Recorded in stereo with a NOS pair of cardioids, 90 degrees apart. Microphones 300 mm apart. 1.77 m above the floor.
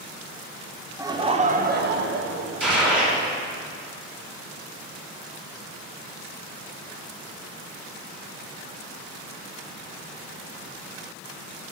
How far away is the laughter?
About 1.0 m.